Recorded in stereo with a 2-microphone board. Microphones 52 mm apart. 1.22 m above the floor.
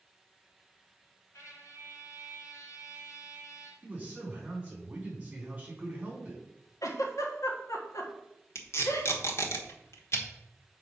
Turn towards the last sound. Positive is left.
turn(degrees=60)  # may be behind; listen again after turning